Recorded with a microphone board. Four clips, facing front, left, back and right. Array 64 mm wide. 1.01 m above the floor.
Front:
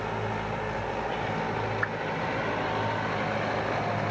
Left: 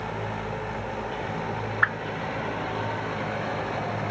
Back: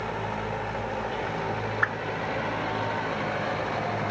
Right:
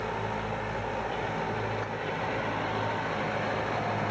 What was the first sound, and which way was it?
A whoosh, 110° left.